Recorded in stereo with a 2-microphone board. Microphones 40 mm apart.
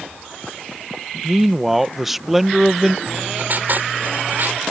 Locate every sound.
1.2 s a man speaking: 5° right (ahead or behind)
3.1 s writing: 55° right (ahead or behind)